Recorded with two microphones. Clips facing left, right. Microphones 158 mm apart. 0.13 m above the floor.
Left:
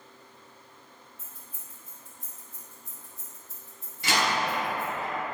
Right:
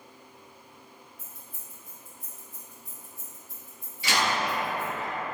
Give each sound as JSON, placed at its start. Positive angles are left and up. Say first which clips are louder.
{"t": 1.2, "sound": "keys jangling", "louder": "right 1 dB", "side_deg": 25, "distance_m": 1.7}
{"t": 4.0, "sound": "a door slam", "louder": "even", "side_deg": 50, "distance_m": 1.7}